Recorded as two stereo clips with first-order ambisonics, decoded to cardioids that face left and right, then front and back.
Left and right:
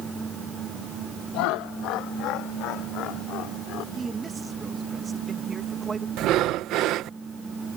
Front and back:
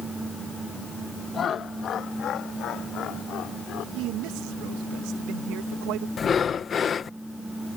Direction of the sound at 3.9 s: 160° right.